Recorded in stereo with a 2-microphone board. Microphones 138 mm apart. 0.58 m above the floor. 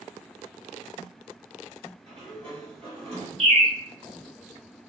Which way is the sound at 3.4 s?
45° right (ahead or behind).